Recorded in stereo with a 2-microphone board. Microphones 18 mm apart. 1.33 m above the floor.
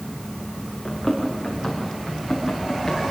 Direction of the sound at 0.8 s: 15° left (ahead or behind).